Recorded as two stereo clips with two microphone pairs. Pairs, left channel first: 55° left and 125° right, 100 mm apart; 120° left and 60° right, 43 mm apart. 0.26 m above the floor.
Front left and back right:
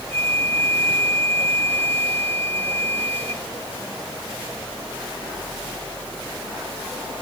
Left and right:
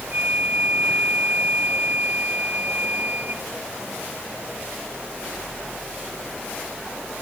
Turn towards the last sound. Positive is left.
turn(degrees=-10)